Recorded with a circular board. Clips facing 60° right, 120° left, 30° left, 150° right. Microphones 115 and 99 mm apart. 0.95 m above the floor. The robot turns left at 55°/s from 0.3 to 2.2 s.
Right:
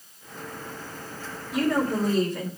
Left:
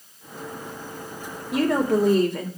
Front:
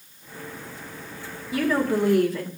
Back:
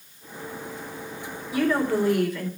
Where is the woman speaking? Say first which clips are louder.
Left 3 dB, even; 125° left, 2.5 m; by 2.5 s 85° left, 2.5 m.